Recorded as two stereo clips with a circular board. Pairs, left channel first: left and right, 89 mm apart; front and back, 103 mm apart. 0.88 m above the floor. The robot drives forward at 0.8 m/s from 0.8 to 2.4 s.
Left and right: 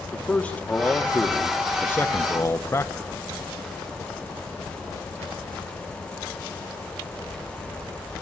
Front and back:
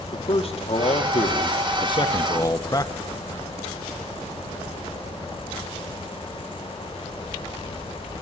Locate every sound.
0.1 s a man speaking: 15° left, 2 m; by 2.9 s 40° left, 1.1 m